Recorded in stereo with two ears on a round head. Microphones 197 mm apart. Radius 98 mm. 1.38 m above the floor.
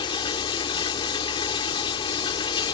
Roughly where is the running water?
Left.